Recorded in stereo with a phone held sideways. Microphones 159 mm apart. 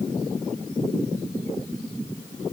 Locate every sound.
Only background noise.